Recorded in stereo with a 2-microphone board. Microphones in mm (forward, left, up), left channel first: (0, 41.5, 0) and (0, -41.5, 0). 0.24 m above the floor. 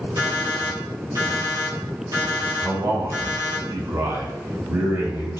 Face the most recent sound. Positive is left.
turn(degrees=-40)  # may be behind; listen again after turning